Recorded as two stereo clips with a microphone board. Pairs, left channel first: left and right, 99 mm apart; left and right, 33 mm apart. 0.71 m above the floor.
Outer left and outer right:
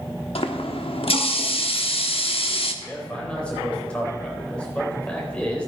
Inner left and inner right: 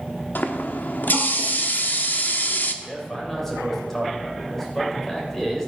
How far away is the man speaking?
About 3.5 m.